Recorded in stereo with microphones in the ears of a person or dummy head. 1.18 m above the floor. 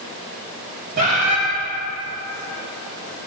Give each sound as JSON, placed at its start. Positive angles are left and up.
{"t": 1.0, "sound": "a bird", "side_deg": -50, "distance_m": 2.5}